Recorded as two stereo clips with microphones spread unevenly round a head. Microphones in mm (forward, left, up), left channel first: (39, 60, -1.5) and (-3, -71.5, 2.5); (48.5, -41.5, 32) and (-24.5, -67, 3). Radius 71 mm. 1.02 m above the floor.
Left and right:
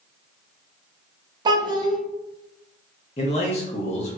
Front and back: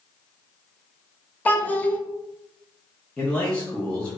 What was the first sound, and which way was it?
A child speaking, 45° right.